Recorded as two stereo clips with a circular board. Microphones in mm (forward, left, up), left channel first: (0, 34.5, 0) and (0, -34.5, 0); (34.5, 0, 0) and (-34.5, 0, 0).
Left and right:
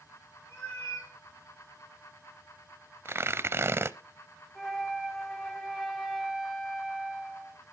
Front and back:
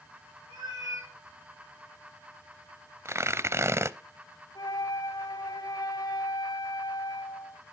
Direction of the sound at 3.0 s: 135° right.